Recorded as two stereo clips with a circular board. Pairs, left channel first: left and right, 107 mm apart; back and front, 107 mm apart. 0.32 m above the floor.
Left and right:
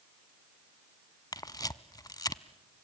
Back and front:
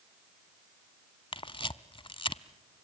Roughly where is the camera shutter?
Behind left.